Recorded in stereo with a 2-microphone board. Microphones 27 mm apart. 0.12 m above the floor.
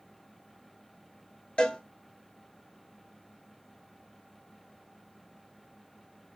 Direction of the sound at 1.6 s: 40° left (ahead or behind).